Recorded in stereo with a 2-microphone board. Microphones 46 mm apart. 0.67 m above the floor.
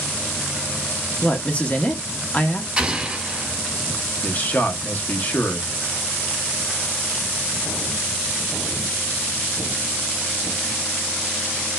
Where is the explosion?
20° right (ahead or behind), 1.5 m.